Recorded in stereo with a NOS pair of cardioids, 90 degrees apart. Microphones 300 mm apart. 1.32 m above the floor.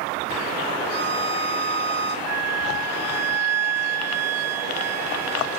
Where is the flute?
60° right, 0.7 m.